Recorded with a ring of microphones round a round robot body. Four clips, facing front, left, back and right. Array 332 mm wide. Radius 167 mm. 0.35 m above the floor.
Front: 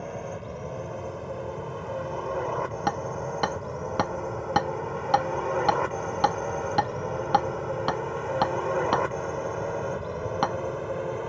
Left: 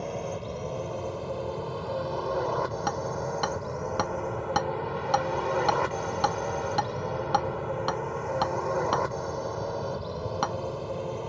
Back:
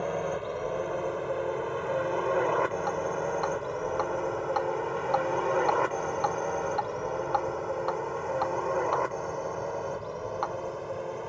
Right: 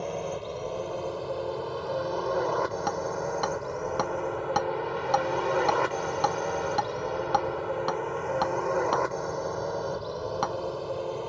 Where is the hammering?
5° left.